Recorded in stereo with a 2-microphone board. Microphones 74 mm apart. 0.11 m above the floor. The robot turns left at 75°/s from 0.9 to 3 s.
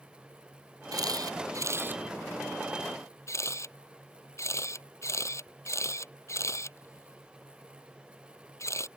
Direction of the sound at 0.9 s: 65° right (ahead or behind).